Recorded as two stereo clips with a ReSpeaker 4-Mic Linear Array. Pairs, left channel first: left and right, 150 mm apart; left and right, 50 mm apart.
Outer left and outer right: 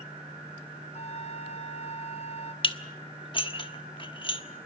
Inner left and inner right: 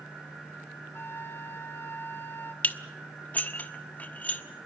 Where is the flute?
45° left (ahead or behind), 0.9 m.